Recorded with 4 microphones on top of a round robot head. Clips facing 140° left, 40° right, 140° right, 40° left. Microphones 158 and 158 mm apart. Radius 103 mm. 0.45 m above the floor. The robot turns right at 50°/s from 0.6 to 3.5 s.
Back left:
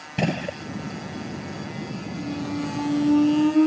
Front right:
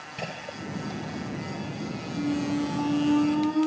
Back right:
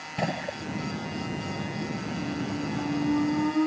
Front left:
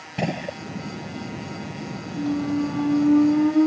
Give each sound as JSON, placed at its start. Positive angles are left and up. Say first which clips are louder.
{"t": 0.2, "sound": "a gunshot", "louder": "back left 11 dB, front left 3 dB", "azimuth_deg": 110}
{"t": 2.2, "sound": "a squeak", "louder": "front right 3 dB, front left 11 dB", "azimuth_deg": 25}